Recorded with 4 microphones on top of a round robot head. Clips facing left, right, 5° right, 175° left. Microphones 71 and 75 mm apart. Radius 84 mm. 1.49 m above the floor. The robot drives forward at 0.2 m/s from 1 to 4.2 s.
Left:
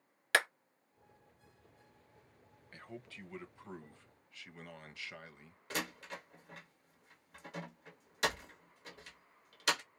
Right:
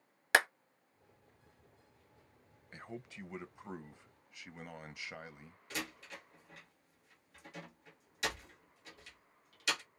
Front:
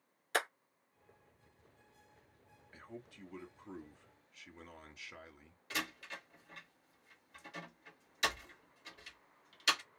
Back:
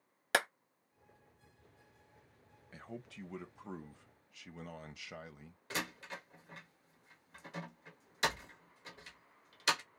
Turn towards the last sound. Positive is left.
turn(degrees=125)